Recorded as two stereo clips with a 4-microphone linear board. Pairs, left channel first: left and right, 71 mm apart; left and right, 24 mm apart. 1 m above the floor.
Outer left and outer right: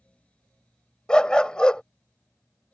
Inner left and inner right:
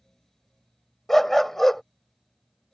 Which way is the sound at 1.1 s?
15° left (ahead or behind).